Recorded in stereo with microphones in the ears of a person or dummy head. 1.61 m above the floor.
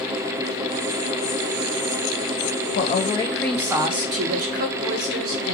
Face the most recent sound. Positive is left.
turn(degrees=-60)  # may be behind; listen again after turning